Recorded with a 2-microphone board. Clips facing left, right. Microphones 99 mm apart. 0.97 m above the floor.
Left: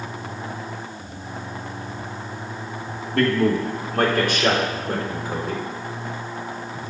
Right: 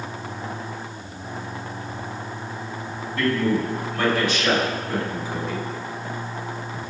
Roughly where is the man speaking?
Left.